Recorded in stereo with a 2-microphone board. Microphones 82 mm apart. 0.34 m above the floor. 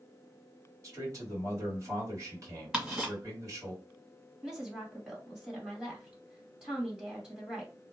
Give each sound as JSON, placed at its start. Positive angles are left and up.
{"t": 0.8, "sound": "a man speaking", "side_deg": -40, "distance_m": 2.0}
{"t": 2.7, "sound": "ticking", "side_deg": -10, "distance_m": 1.5}
{"t": 4.4, "sound": "a woman speaking", "side_deg": -10, "distance_m": 1.8}